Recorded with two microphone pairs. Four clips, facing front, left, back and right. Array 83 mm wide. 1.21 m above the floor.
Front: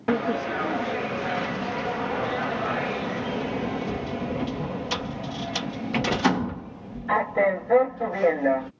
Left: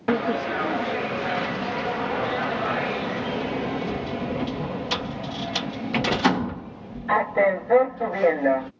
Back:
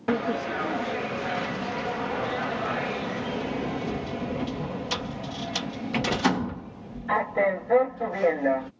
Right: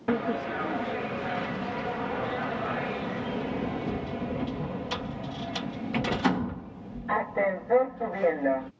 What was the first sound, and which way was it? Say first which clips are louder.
A sliding door: left 5 dB, front 2 dB; 75° left.